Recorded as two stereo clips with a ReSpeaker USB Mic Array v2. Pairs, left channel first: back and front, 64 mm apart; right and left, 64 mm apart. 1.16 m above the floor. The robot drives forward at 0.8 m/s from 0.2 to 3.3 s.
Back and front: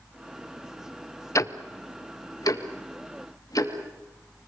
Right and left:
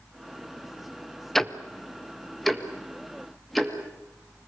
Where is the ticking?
170° right, 0.9 m; by 4.5 s straight behind, 2.5 m.